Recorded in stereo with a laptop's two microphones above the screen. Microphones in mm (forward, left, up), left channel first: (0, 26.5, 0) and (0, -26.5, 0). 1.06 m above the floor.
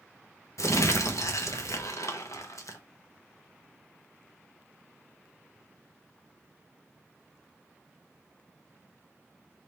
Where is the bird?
No bird in this recording.